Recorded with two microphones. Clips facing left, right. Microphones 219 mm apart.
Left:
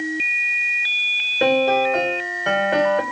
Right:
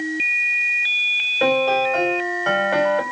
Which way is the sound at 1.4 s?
20° left (ahead or behind).